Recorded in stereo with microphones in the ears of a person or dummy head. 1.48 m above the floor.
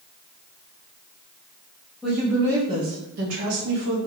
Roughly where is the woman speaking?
Centre.